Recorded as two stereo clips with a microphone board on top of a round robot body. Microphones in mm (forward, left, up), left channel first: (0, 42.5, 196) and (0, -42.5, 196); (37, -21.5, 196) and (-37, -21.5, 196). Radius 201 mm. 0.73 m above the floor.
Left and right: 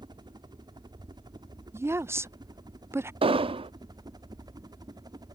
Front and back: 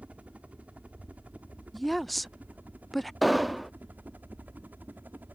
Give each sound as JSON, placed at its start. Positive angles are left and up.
{"t": 0.0, "sound": "a helicopter", "azimuth_deg": -110}
{"t": 1.7, "sound": "a woman speaking", "azimuth_deg": -90}
{"t": 3.2, "sound": "an explosion", "azimuth_deg": -90}